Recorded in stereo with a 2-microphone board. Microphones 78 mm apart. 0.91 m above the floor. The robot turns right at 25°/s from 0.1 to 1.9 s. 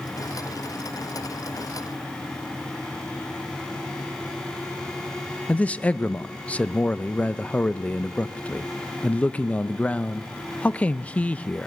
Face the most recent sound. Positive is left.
turn(degrees=15)  # may be behind; listen again after turning